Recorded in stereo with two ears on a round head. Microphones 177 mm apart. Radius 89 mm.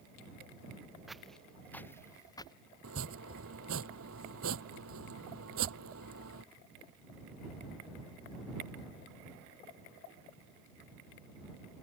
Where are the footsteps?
Centre (ahead or behind); by 2.6 s 25° left (ahead or behind).